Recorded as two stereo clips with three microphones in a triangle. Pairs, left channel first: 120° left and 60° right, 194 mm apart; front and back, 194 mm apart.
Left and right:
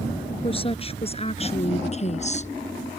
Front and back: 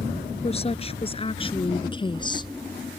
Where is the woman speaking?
60° left; by 2.5 s 65° left.